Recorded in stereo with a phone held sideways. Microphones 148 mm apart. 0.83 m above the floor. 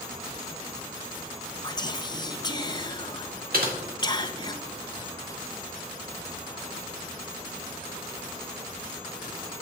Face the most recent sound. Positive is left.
turn(degrees=-75)  # may be behind; listen again after turning